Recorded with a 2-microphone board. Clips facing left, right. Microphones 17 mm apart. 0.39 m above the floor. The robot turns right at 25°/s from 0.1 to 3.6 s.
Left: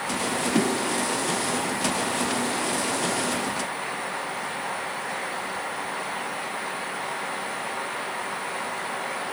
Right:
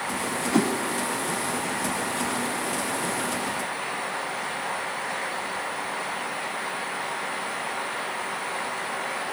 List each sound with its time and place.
0.5 s a whoosh: 60° right (ahead or behind), 1.7 m; by 0.7 s 65° right (ahead or behind), 1.7 m